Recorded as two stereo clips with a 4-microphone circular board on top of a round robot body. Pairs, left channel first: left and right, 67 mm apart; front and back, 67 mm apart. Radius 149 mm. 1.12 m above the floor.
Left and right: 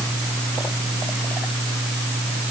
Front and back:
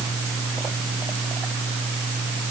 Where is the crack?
I don't hear a crack.